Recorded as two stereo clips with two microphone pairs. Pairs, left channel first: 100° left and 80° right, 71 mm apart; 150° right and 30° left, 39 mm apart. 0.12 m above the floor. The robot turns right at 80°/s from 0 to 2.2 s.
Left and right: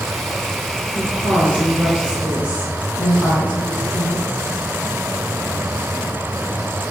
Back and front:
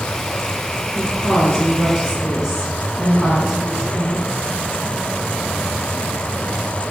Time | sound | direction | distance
0.9 | a woman speaking | 140° right | 1.4 m